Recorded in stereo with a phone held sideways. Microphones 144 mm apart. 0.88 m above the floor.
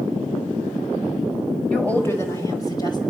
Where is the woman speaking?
5° left (ahead or behind), 4.5 m; by 3.0 s 30° left (ahead or behind), 5.5 m.